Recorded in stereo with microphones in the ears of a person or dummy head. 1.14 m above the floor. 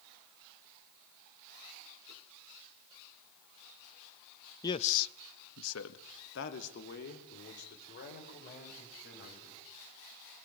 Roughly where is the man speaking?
Centre.